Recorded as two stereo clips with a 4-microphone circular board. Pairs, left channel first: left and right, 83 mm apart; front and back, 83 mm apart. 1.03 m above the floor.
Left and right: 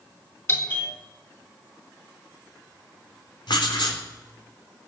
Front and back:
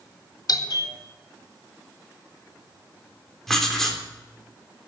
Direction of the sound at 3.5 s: 85° left.